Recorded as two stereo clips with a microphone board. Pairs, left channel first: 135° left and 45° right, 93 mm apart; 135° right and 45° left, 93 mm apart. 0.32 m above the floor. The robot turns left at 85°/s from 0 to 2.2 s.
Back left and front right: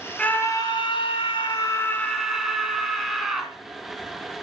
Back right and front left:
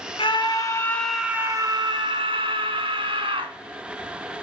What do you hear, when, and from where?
0.2 s a scream: 145° right, 2.5 m; by 3.5 s 45° left, 2.5 m